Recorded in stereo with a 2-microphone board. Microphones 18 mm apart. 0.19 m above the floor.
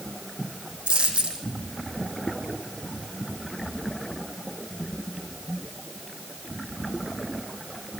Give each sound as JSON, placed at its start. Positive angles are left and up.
{"t": 0.9, "sound": "a dropped coin", "side_deg": -80, "distance_m": 4.5}